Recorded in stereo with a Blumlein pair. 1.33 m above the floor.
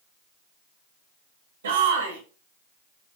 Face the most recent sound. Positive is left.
turn(degrees=-65)